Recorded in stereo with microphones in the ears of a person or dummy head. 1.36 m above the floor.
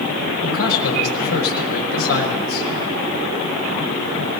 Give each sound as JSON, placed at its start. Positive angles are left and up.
{"t": 0.4, "sound": "a man speaking", "side_deg": 90, "distance_m": 5.0}